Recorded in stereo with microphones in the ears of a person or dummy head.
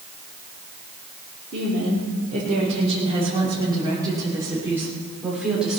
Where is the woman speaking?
45° right (ahead or behind), 3 m; by 5.8 s centre (ahead or behind), 3.5 m.